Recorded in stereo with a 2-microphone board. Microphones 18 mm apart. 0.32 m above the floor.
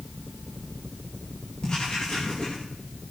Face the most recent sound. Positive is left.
turn(degrees=45)  # may be behind; listen again after turning